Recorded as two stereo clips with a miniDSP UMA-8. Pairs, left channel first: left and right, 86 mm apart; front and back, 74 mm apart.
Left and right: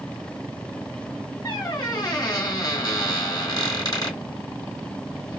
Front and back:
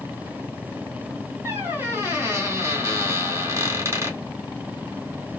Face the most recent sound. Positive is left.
turn(degrees=130)